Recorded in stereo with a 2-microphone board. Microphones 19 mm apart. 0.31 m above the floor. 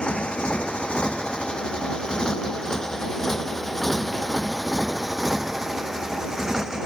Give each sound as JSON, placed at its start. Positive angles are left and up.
{"t": 0.0, "sound": "a motorcycle", "side_deg": 60}